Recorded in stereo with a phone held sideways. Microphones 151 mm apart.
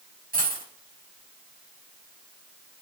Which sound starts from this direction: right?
A dropped coin, at 0.3 s.